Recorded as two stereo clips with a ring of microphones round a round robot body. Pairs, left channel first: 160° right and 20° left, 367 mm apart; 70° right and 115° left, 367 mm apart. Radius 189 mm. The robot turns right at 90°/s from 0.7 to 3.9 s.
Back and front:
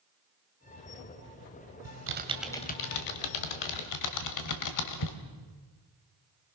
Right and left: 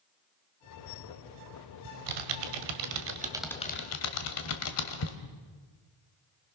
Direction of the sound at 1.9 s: 60° left.